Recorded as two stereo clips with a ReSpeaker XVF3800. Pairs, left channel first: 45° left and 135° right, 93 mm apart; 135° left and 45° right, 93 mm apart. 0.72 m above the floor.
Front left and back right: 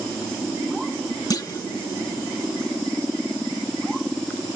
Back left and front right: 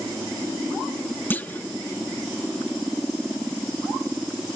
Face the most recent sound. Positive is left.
turn(degrees=75)